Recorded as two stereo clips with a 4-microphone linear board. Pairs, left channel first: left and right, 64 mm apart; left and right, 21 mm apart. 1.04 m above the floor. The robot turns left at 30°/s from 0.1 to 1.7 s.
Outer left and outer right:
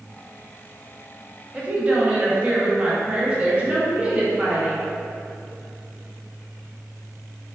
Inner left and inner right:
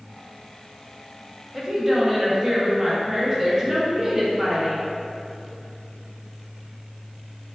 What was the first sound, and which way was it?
A woman speaking, 20° right (ahead or behind).